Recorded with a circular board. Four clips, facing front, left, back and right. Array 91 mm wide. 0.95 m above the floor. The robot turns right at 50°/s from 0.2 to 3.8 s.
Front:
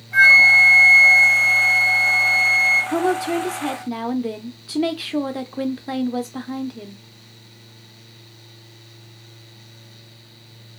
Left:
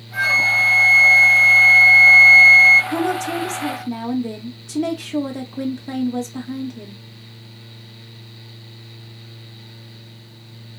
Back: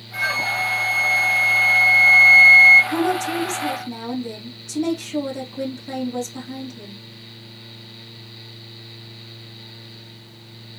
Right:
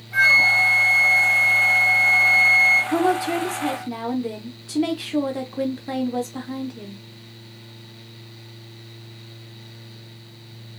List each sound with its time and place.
0.1 s a flute: 15° right, 1.3 m; by 2.8 s 115° left, 1.3 m
2.9 s a woman speaking: 60° right, 0.5 m; by 7.0 s 15° right, 0.5 m